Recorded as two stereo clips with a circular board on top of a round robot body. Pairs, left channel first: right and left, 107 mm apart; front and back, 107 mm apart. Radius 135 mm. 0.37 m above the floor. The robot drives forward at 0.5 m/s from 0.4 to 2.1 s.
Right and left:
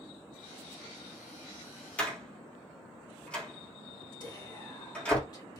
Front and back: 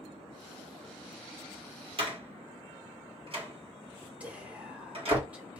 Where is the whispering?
110° right, 1.6 m.